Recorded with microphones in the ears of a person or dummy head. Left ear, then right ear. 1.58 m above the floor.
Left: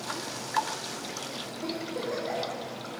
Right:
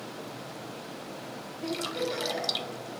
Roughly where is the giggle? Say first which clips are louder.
Right 3 dB; left.